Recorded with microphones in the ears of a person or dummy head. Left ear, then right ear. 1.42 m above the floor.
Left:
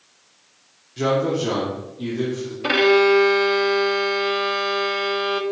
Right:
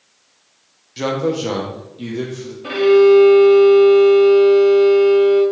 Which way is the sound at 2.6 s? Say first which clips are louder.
Right 4 dB; 30° left (ahead or behind).